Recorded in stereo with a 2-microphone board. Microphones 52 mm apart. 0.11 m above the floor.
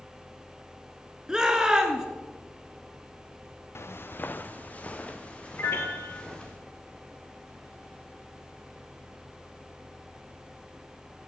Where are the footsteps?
60° left (ahead or behind), 0.5 m; by 6.6 s 20° left (ahead or behind), 2.5 m.